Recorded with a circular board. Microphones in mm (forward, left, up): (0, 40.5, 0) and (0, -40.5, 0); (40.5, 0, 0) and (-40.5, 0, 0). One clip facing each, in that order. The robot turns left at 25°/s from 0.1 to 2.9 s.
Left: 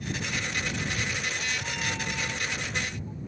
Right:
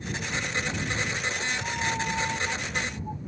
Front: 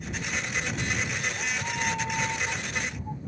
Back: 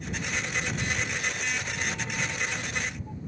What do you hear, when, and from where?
0.7 s a cat meowing: 5° right; by 3.2 s 60° right